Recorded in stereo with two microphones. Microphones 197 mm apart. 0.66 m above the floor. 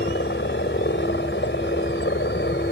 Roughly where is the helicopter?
Left.